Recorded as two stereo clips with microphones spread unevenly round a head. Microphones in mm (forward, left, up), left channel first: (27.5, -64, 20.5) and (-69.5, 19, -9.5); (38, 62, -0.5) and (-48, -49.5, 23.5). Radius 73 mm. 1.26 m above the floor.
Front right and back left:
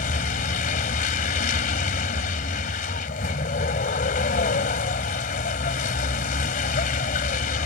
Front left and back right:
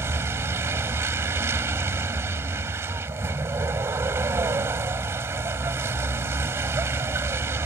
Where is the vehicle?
55° right.